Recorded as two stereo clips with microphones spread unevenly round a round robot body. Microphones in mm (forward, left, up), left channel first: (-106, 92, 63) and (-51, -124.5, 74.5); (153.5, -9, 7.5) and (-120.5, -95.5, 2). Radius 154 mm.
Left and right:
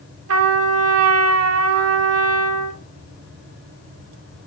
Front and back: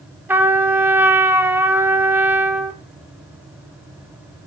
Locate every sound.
0.3 s a trumpet: 80° right, 0.7 m